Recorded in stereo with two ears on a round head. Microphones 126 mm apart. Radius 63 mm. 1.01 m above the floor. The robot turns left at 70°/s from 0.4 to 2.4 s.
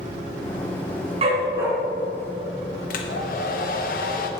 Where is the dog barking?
135° right, 3 m; by 1.7 s 170° right, 3 m.